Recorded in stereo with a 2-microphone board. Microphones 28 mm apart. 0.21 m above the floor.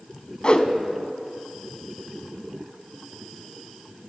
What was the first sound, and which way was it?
A whoosh, 35° left (ahead or behind).